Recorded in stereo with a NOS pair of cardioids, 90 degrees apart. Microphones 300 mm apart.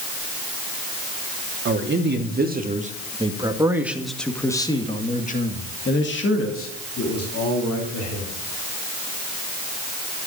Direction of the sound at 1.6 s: 45° right.